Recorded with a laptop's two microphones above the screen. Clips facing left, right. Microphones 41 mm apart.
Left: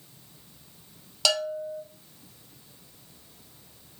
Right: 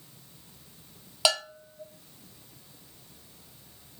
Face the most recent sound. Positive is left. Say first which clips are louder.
# left 2 dB
turn(degrees=-20)  # may be behind; listen again after turning